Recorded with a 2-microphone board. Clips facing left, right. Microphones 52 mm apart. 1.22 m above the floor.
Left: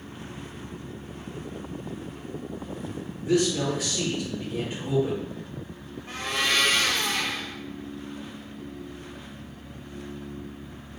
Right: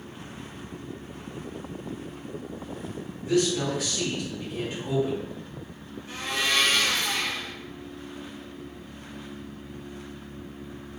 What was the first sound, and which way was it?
A man speaking, 20° left (ahead or behind).